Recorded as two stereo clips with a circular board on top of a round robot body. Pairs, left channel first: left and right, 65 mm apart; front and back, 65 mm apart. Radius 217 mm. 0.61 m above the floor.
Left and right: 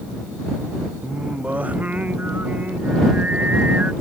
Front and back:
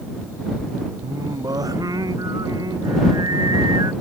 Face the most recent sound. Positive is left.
turn(degrees=-160)